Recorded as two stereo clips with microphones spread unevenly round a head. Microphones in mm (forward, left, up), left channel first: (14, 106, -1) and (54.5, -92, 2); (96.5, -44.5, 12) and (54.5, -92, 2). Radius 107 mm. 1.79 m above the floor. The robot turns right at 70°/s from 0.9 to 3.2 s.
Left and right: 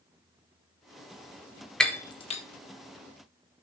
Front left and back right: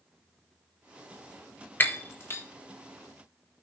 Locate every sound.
1.8 s breaking glass: 15° left, 1.2 m; by 2.4 s 60° left, 1.2 m